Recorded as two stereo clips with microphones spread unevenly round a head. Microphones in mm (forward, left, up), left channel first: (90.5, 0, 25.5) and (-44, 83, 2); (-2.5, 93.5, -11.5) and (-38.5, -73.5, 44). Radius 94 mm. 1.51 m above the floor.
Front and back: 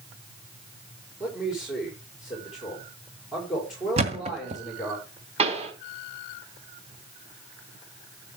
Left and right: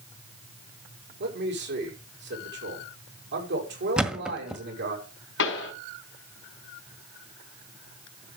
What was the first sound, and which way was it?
A man speaking, 125° right.